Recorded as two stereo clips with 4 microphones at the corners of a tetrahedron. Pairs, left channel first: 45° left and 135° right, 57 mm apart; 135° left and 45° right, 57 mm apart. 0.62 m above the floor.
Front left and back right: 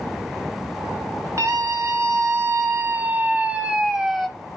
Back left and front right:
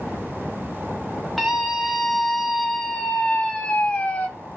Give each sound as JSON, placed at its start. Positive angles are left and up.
{"t": 1.4, "sound": "a scream", "azimuth_deg": -140, "distance_m": 1.8}